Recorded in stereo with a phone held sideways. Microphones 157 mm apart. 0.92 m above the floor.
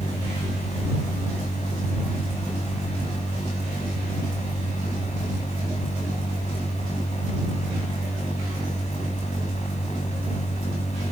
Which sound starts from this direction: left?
A machine running, at 0.0 s.